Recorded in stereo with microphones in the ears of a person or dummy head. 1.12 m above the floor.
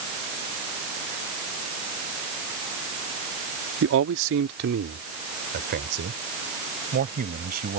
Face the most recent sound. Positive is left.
turn(degrees=-45)  # may be behind; listen again after turning